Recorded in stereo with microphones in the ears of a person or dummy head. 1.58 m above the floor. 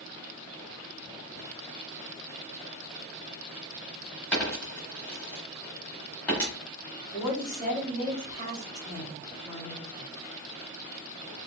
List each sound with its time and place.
4.3 s a dropped coin: 5° left (ahead or behind), 1.5 m
7.1 s a woman speaking: 25° left (ahead or behind), 1.9 m